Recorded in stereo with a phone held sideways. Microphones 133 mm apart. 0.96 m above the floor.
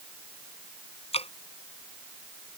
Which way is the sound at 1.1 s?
45° left (ahead or behind).